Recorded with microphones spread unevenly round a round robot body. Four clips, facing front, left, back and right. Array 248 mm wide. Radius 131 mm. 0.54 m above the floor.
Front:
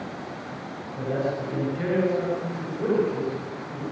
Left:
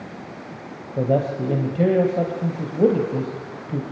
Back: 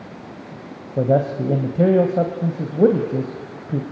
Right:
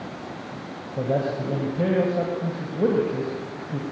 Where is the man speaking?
165° left, 3 m.